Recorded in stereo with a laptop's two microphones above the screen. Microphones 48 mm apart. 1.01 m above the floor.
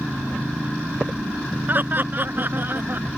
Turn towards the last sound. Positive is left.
turn(degrees=-40)  # may be behind; listen again after turning